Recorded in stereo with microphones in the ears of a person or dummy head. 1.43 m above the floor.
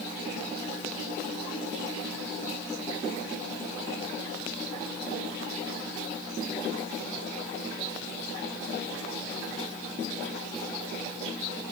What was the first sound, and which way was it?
Only background noise.